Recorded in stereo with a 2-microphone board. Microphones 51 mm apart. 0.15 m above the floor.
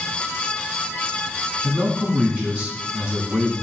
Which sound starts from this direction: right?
A man speaking, at 1.6 s.